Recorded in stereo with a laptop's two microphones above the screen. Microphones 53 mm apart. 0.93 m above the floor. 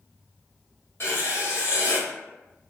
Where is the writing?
55° left (ahead or behind), 1.2 m.